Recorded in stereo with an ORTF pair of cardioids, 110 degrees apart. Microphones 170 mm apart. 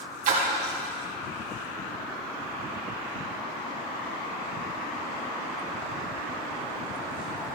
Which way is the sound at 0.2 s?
60° right.